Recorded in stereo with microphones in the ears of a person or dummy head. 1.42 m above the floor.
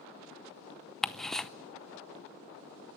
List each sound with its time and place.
1.0 s ticking: 5° left (ahead or behind), 0.6 m